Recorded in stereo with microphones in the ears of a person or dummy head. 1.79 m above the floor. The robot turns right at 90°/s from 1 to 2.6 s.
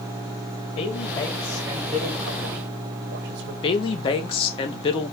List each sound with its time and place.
0.8 s a woman speaking: 125° left, 1.4 m; by 3.5 s 90° right, 1.4 m
3.6 s a woman speaking: 30° left (ahead or behind), 1.3 m